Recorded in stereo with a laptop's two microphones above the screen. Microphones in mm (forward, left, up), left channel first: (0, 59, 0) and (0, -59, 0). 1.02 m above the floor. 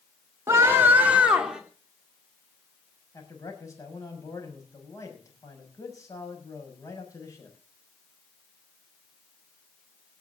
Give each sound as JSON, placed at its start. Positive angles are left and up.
{"t": 0.5, "sound": "a scream", "side_deg": -25, "distance_m": 3.0}
{"t": 3.1, "sound": "a man speaking", "side_deg": 30, "distance_m": 6.5}